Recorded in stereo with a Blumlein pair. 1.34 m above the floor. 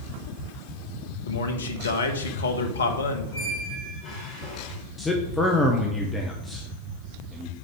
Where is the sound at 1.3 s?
70° left, 1.1 m.